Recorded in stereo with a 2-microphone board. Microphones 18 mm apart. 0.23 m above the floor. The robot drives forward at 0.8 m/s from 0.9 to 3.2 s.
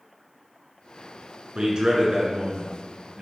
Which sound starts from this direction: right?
A man speaking, at 1.6 s.